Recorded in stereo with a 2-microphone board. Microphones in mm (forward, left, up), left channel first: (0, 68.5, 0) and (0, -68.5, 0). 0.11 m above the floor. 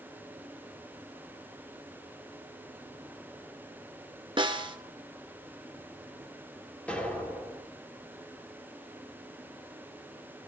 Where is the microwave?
No microwave in this recording.